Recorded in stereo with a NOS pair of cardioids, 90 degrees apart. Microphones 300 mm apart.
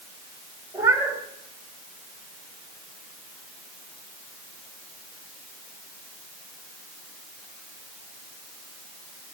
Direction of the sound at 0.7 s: 10° right.